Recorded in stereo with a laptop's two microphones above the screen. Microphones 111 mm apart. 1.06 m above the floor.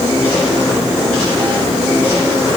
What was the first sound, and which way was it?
Only background noise.